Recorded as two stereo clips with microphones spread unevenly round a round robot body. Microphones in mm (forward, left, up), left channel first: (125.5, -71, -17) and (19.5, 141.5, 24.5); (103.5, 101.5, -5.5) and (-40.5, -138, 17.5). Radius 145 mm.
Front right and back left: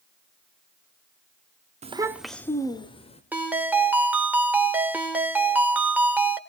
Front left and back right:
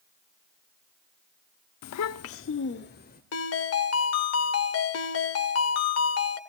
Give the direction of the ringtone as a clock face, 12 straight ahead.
11 o'clock.